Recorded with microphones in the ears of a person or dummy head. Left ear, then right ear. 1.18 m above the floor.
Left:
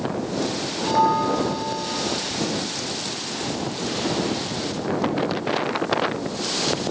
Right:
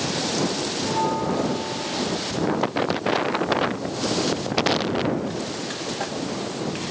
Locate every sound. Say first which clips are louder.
0.8 s a bell: left 6 dB; 45° left (ahead or behind)